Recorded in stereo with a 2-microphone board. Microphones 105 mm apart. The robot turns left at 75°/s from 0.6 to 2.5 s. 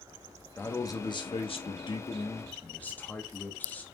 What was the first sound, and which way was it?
A man speaking, 160° left.